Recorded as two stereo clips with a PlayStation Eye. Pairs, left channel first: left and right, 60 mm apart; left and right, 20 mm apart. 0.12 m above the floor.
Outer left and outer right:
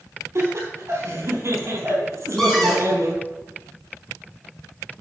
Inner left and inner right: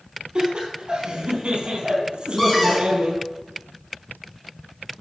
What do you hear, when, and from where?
0.3 s laughter: 50° right (ahead or behind), 4 m
2.4 s a cupboard door: 5° left (ahead or behind), 3.5 m